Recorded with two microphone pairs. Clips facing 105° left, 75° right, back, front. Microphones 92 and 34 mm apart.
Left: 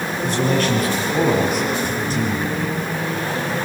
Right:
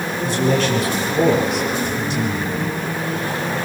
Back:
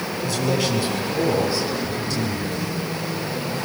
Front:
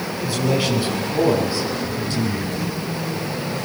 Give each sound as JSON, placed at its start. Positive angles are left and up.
{"t": 0.2, "sound": "a man speaking", "azimuth_deg": 70, "distance_m": 7.0}